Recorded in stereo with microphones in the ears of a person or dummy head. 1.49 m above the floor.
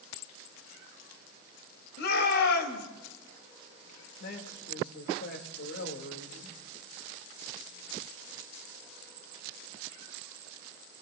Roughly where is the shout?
Left.